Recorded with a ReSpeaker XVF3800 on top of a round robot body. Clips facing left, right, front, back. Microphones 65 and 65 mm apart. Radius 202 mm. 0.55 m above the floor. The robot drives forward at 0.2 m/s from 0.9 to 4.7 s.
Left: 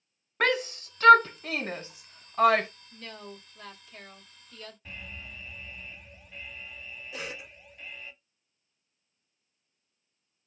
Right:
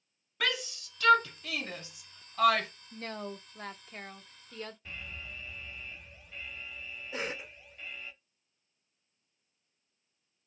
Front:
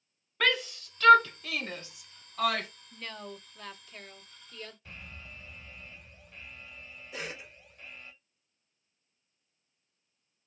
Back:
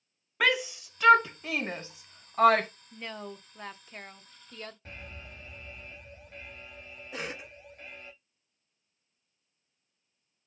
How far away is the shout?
About 0.7 m.